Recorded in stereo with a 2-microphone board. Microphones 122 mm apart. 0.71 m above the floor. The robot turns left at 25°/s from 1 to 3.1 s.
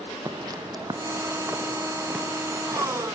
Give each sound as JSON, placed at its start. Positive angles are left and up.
{"t": 0.2, "sound": "footsteps", "side_deg": -30, "distance_m": 1.2}